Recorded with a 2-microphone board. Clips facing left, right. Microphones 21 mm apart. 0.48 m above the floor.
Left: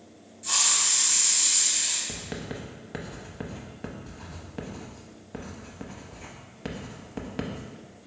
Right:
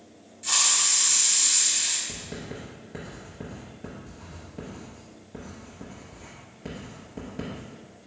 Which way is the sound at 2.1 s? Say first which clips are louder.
Left 1 dB; 50° left (ahead or behind).